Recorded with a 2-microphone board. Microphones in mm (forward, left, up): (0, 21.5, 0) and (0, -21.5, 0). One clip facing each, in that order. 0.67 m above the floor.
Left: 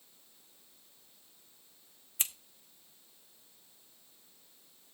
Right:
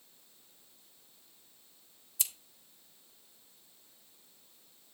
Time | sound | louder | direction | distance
2.2 | scissors | left 3 dB | 40° left (ahead or behind) | 1.5 m